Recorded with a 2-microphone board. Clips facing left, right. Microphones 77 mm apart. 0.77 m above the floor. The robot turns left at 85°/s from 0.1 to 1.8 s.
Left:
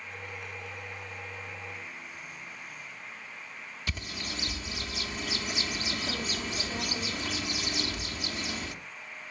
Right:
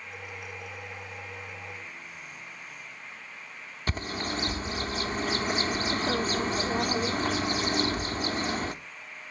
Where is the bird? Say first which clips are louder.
Right 7 dB; 45° right (ahead or behind), 0.9 m.